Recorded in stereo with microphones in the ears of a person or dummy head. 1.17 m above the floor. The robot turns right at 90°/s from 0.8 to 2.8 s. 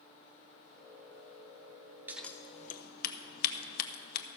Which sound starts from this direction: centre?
Scissors, at 2.1 s.